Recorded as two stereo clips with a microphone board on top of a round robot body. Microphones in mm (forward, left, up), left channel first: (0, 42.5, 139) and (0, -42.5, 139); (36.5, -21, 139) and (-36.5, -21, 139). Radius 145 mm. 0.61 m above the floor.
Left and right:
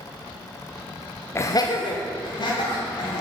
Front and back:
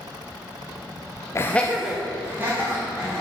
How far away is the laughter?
About 0.7 m.